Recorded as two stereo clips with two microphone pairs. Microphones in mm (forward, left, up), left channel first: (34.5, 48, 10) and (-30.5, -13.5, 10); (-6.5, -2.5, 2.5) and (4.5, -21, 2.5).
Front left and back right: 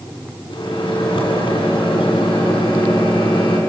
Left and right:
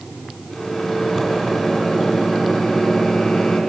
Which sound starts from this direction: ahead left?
A microwave, at 0.5 s.